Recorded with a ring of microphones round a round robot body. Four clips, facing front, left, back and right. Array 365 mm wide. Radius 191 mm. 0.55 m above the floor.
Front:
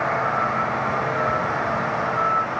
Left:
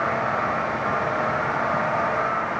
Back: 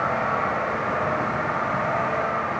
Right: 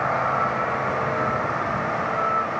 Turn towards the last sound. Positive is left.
No sound to turn to.